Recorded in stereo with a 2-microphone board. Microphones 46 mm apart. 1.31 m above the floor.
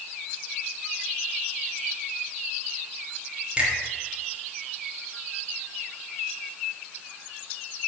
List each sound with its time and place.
3.6 s a finger snap: 30° right (ahead or behind), 3.5 m